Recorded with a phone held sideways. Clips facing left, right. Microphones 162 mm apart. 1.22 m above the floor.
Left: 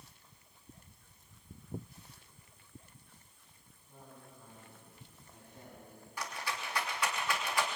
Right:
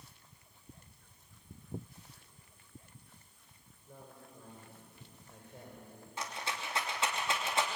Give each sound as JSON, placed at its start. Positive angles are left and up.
{"t": 3.9, "sound": "a man speaking", "side_deg": -70, "distance_m": 6.0}
{"t": 6.2, "sound": "a rattle", "side_deg": -25, "distance_m": 3.0}